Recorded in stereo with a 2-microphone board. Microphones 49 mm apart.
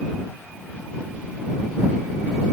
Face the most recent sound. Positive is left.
No sound to turn to.